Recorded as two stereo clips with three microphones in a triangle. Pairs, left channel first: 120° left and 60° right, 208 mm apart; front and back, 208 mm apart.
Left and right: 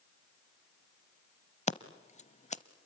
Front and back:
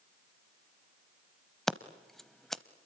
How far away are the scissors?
About 0.7 m.